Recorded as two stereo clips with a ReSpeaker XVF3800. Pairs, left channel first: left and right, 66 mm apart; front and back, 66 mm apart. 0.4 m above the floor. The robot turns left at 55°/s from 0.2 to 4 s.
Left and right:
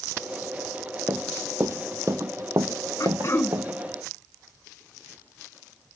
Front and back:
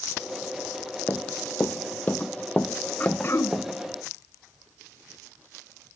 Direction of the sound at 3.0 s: 60° left.